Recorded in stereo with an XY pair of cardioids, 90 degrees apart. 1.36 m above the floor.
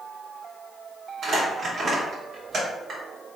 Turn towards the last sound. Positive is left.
turn(degrees=-60)